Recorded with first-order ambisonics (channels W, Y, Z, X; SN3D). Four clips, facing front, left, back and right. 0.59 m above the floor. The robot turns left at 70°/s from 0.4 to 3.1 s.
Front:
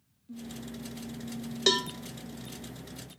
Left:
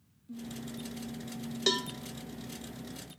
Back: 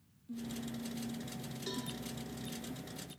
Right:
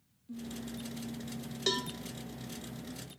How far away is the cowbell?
About 0.6 m.